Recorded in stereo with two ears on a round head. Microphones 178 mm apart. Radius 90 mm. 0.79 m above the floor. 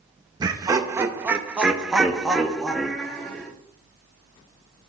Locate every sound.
0.4 s laughter: 20° right (ahead or behind), 0.9 m; by 3.5 s 5° left (ahead or behind), 1.9 m